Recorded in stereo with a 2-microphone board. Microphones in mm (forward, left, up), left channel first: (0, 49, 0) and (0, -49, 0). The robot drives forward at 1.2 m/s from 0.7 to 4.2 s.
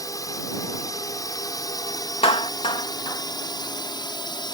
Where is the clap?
75° left (ahead or behind); by 3.2 s 45° left (ahead or behind).